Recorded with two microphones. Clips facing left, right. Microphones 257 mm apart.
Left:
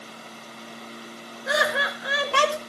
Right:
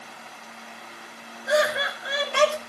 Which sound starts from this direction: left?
Laughter, at 1.5 s.